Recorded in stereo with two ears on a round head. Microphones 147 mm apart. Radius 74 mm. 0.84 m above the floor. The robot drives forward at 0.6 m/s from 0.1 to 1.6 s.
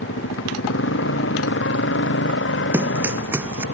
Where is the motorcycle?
85° left; by 3.7 s 90° left.